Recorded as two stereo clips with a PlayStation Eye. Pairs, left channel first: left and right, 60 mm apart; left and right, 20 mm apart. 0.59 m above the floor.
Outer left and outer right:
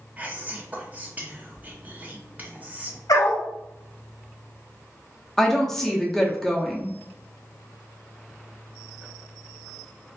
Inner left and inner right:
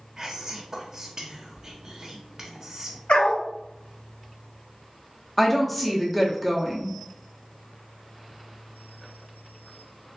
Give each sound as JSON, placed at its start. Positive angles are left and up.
{"t": 0.2, "sound": "whispering", "side_deg": -25, "distance_m": 0.7}
{"t": 3.1, "sound": "a dog barking", "side_deg": 80, "distance_m": 0.7}
{"t": 5.4, "sound": "a woman speaking", "side_deg": 5, "distance_m": 0.7}